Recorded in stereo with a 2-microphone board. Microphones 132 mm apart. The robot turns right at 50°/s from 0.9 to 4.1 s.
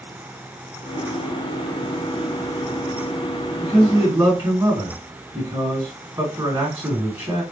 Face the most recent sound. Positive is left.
turn(degrees=-25)  # may be behind; listen again after turning